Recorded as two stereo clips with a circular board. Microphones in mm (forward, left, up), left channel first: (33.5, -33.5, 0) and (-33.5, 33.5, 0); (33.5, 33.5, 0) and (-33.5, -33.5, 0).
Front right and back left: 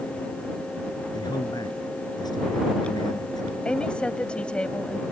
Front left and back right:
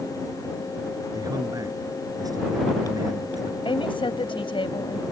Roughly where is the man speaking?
Right.